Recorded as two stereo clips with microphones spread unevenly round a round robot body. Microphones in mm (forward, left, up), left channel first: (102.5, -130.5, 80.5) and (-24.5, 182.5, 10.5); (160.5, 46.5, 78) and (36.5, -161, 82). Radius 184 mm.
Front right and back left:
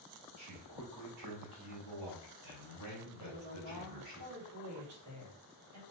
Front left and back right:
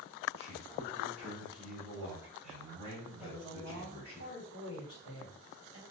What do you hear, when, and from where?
0.4 s a man speaking: 90° left, 2 m; by 4.2 s 145° left, 3.5 m
3.2 s a woman speaking: 80° left, 2.5 m